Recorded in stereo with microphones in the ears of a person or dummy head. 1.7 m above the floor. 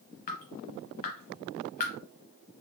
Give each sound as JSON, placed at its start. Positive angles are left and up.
{"t": 0.3, "sound": "dripping", "side_deg": 45, "distance_m": 0.6}